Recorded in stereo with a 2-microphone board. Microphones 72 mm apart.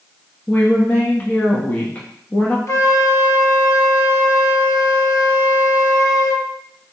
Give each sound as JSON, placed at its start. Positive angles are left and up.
{"t": 0.5, "sound": "a woman speaking", "side_deg": 20, "distance_m": 1.0}
{"t": 2.7, "sound": "a flute", "side_deg": 40, "distance_m": 0.9}